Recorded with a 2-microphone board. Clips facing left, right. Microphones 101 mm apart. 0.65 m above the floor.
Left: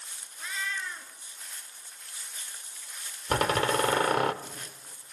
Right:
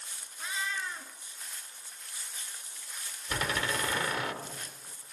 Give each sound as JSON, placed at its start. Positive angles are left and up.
{"t": 0.4, "sound": "a cat meowing", "side_deg": -15, "distance_m": 3.0}
{"t": 3.3, "sound": "a door slam", "side_deg": 50, "distance_m": 1.3}